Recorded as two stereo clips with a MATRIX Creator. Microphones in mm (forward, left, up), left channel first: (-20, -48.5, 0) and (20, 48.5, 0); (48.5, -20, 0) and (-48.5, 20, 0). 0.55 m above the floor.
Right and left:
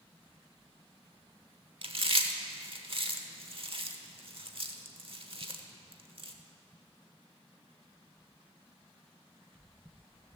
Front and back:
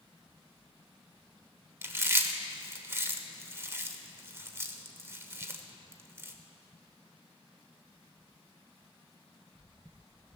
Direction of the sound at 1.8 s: 95° left.